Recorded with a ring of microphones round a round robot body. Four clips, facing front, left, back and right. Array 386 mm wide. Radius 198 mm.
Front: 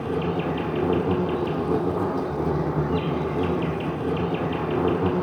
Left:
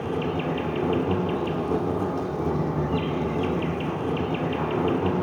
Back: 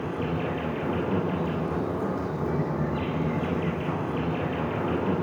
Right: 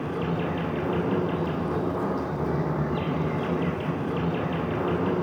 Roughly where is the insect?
Ahead left.